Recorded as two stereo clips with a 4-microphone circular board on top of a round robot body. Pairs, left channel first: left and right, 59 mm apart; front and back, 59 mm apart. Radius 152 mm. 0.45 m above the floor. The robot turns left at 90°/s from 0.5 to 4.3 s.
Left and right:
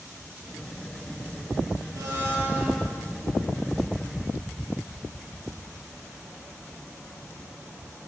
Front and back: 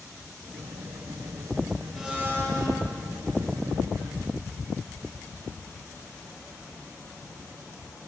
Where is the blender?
95° right, 7 m; by 2.8 s 170° right, 7 m.